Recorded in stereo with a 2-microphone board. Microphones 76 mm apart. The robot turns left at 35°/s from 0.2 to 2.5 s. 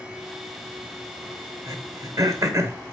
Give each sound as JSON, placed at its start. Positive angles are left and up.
{"t": 1.7, "sound": "throat clearing", "side_deg": -55, "distance_m": 1.0}